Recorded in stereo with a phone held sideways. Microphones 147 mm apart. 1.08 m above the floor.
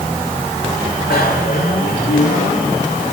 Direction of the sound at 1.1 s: 85° left.